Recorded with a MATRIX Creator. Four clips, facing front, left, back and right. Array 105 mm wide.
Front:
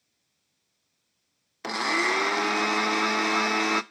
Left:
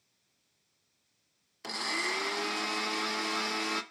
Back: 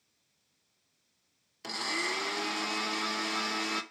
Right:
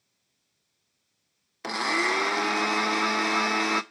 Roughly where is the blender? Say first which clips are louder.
Right 9 dB, front 9 dB; ahead right.